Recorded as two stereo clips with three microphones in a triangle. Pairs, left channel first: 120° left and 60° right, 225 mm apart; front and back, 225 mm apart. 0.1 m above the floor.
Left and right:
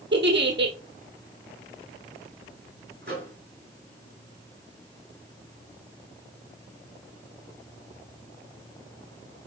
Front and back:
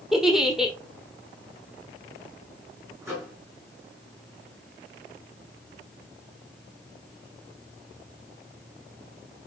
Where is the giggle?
90° right, 1.1 m.